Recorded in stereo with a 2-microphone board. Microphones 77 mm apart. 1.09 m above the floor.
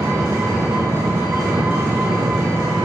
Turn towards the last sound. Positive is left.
turn(degrees=-50)  # may be behind; listen again after turning